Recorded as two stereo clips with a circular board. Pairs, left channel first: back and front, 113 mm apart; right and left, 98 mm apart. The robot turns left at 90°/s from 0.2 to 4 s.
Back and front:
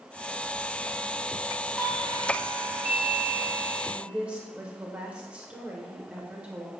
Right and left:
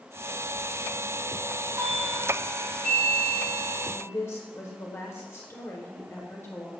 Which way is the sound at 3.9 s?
60° right.